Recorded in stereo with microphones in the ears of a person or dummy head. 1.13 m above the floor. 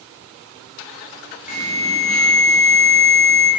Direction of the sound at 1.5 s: 45° left (ahead or behind).